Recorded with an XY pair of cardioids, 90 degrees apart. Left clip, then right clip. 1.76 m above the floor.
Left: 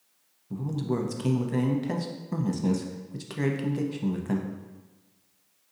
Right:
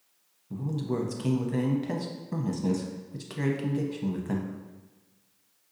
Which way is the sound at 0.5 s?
15° left.